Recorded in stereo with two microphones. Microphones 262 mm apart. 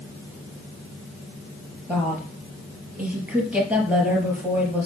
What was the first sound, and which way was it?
A woman speaking, 5° right (ahead or behind).